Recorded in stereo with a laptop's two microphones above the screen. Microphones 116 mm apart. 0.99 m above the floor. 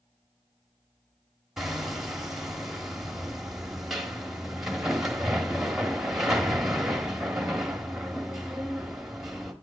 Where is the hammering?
5° right (ahead or behind), 1.2 m.